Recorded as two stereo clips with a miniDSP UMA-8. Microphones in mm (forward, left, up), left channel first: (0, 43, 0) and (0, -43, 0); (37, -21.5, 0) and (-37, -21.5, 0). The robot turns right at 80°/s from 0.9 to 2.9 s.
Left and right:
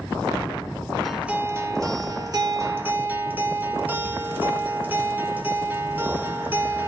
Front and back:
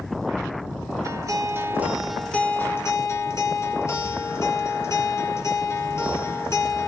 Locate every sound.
1.0 s a guitar: straight behind, 1.3 m; by 6.9 s 30° right, 1.3 m